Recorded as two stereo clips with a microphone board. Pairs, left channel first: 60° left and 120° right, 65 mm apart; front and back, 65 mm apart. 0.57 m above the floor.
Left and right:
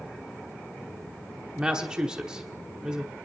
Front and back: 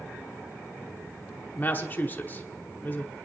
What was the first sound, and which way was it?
A woman speaking, 45° right.